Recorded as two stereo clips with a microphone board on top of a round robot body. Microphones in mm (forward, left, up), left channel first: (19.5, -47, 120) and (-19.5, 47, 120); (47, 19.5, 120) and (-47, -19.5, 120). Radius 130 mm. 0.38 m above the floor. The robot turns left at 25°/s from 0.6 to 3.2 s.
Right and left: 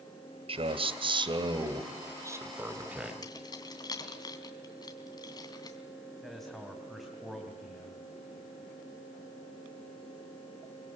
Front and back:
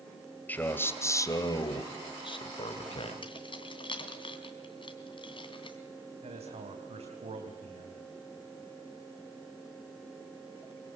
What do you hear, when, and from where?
0.5 s a man speaking: 95° left, 2.5 m; by 3.1 s 30° left, 2.5 m
3.2 s keys jangling: 15° right, 3 m
6.2 s a man speaking: 155° right, 3 m